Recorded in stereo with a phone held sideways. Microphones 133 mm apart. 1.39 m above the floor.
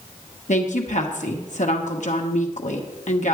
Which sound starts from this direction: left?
A woman speaking, at 0.5 s.